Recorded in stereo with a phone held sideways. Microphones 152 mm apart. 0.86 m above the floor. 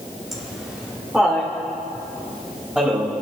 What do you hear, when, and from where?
0.3 s laughter: centre (ahead or behind), 1.7 m; by 3.1 s 5° right (ahead or behind), 4.5 m